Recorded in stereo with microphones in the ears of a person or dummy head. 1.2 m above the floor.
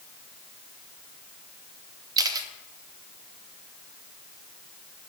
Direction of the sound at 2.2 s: 20° right (ahead or behind).